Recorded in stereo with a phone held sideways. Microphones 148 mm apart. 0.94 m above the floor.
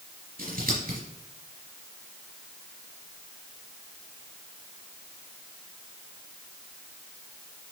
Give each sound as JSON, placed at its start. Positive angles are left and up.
{"t": 0.4, "sound": "scissors", "side_deg": -80, "distance_m": 4.0}